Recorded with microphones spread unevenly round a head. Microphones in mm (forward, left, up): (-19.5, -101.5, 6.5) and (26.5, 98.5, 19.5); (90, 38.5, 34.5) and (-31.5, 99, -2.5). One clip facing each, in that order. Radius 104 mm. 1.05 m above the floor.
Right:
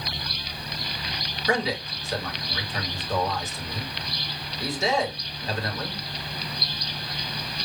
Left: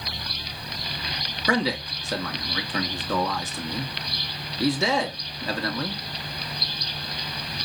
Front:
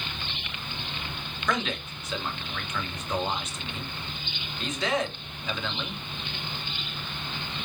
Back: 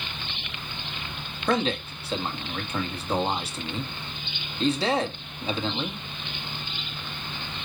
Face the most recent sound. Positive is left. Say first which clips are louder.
# left 2 dB, back 5 dB
turn(degrees=100)